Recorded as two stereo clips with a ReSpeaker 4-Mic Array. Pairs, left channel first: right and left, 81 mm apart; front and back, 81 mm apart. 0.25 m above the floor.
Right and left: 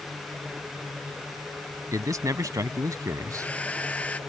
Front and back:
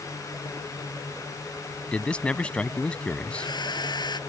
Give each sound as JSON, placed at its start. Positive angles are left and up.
{"t": 1.9, "sound": "a man speaking", "azimuth_deg": 70}
{"t": 3.3, "sound": "a hair dryer", "azimuth_deg": -15}